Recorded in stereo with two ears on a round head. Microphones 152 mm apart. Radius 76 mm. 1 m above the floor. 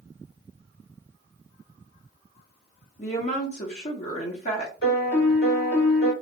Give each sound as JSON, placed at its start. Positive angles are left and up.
{"t": 3.0, "sound": "a woman speaking", "side_deg": 45, "distance_m": 0.9}
{"t": 4.8, "sound": "a piano", "side_deg": 70, "distance_m": 2.0}